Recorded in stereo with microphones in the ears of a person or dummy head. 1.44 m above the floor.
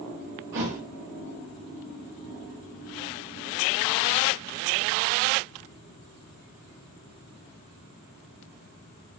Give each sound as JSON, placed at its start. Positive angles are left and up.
{"t": 0.5, "sound": "a thud", "side_deg": -70, "distance_m": 3.0}